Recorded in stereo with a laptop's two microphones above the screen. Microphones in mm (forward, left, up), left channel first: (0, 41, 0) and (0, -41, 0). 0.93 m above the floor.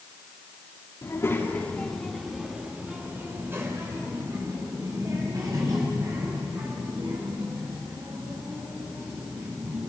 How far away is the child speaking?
About 1.8 m.